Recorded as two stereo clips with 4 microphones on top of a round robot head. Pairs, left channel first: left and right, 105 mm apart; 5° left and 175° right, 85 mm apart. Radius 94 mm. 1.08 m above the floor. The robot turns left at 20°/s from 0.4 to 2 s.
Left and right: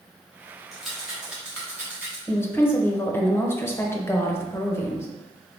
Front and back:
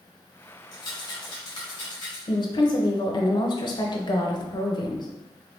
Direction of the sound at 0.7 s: Straight ahead.